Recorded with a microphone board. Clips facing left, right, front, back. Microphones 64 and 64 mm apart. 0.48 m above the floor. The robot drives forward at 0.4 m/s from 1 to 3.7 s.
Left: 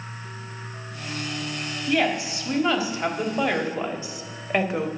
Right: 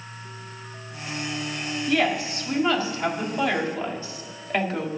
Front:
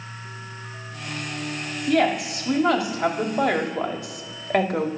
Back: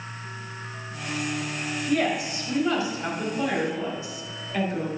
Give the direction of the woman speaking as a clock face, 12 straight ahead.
12 o'clock.